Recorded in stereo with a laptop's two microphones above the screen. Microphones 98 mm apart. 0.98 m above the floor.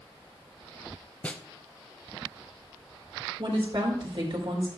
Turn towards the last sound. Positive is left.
turn(degrees=-60)  # may be behind; listen again after turning